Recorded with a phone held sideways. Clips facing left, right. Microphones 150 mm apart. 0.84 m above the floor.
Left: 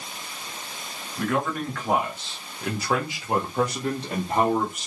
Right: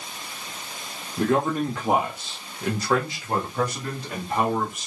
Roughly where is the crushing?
I don't hear crushing.